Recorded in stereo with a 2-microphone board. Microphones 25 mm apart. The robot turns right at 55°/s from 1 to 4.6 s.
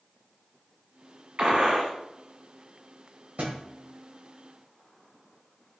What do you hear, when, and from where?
1.4 s a gunshot: 45° right (ahead or behind), 1.1 m; by 1.9 s 50° right (ahead or behind), 1.1 m
3.4 s a thud: 75° right (ahead or behind), 1.4 m; by 3.6 s 65° right (ahead or behind), 1.4 m